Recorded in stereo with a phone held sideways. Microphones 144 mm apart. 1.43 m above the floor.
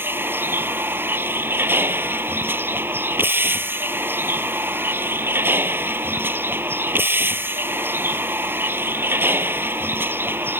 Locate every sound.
0.0 s a vehicle: 15° right (ahead or behind)